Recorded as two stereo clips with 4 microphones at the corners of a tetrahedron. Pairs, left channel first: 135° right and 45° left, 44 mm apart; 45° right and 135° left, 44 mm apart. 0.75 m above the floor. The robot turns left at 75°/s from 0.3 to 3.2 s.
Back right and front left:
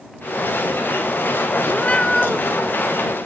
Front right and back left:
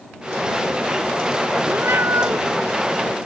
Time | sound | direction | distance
1.7 | a cat meowing | straight behind | ?